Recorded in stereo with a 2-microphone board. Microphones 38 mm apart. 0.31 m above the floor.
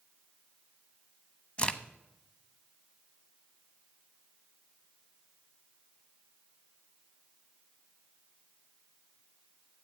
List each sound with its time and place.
1.6 s a crack: 25° left (ahead or behind), 0.7 m